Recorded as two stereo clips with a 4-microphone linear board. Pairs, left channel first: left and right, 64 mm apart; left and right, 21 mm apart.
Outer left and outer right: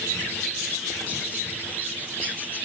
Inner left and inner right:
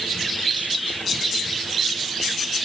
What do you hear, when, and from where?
Only background noise.